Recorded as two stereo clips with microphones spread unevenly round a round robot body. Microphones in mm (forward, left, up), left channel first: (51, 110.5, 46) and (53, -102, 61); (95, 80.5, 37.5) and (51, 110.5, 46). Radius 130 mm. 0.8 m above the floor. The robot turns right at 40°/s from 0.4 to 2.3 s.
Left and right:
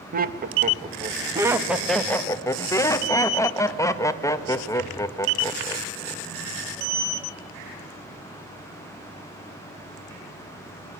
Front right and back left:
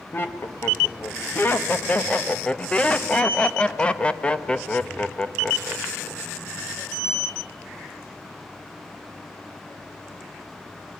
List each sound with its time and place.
0.1 s laughter: 55° right, 1.2 m; by 6.3 s 25° left, 1.2 m